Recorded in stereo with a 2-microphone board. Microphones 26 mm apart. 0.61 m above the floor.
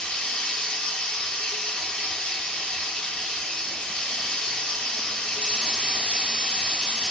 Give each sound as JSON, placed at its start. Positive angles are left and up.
{"t": 0.0, "sound": "running water", "side_deg": 50, "distance_m": 0.7}